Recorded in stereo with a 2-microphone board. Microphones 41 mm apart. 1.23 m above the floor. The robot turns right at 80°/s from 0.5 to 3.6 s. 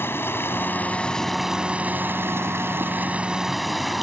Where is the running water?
110° left; by 4.0 s 5° right.